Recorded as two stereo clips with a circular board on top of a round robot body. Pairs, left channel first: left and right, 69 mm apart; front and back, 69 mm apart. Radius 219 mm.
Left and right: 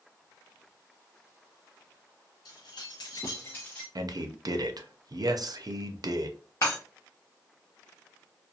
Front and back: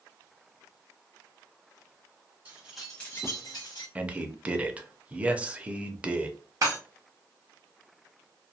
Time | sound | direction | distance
2.5 | keys jangling | 115° left | 0.9 m
4.0 | a man speaking | 110° right | 0.6 m
6.6 | breaking glass | 135° left | 0.7 m